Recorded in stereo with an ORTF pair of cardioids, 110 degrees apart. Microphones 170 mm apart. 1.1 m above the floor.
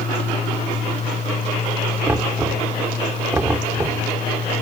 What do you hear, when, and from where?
0.0 s a fan: 40° left
2.1 s knocking: 15° right